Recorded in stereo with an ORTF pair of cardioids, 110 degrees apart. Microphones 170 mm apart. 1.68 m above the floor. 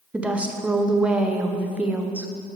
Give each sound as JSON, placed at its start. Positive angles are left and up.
{"t": 0.1, "sound": "a woman speaking", "azimuth_deg": -5, "distance_m": 1.0}